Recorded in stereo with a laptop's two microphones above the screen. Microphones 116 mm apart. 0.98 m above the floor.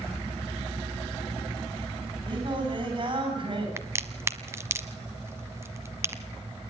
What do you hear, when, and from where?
2.3 s singing: 45° right (ahead or behind), 7 m
3.8 s a crack: 25° right (ahead or behind), 1.0 m